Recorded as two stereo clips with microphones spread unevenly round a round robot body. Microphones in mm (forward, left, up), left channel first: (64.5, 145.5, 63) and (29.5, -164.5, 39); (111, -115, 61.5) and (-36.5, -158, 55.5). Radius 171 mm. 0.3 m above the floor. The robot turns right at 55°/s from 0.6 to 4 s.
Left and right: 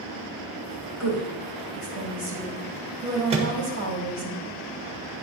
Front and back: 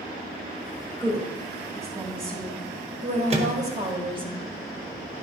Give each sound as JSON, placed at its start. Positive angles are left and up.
{"t": 1.0, "sound": "a woman speaking", "azimuth_deg": 80, "distance_m": 2.0}
{"t": 3.3, "sound": "a microwave", "azimuth_deg": -155, "distance_m": 1.3}